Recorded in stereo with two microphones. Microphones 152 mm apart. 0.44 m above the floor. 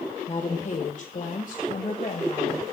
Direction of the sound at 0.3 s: 45° left (ahead or behind).